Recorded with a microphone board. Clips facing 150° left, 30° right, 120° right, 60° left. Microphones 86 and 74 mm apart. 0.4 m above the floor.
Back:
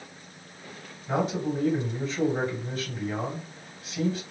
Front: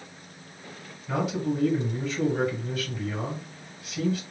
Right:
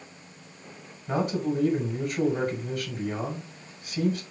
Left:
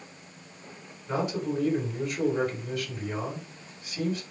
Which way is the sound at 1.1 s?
160° right.